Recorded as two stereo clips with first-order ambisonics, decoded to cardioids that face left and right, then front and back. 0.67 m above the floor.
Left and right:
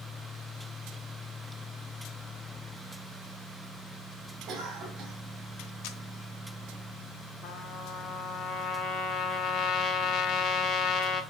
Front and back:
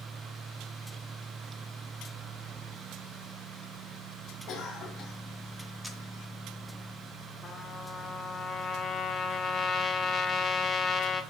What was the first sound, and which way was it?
A cough, 35° right.